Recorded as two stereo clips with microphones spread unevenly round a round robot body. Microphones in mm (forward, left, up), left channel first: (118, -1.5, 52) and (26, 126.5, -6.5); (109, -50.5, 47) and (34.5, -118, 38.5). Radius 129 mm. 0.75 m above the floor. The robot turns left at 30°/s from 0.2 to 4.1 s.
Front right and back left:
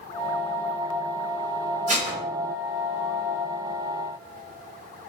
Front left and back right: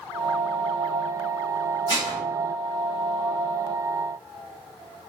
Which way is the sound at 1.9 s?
85° left.